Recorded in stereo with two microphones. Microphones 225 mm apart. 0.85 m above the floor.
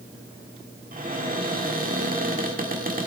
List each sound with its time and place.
0.9 s a cupboard door: 40° right (ahead or behind), 1.3 m